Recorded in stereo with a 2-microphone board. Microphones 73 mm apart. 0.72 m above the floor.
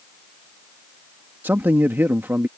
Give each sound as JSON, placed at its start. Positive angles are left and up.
{"t": 1.4, "sound": "a man speaking", "side_deg": -25}